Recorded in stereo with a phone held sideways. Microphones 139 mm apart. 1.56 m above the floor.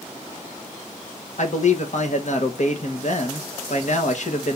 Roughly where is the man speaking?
Left.